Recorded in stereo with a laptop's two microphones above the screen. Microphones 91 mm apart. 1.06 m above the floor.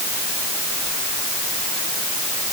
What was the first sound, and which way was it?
Only background noise.